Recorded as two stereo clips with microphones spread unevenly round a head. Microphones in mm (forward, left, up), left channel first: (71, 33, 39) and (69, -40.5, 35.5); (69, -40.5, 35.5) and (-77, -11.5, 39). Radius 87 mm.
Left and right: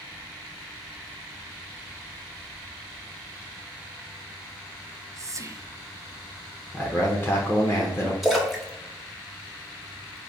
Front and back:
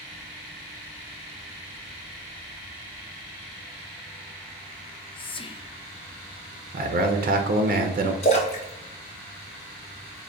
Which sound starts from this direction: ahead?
A splash, at 8.2 s.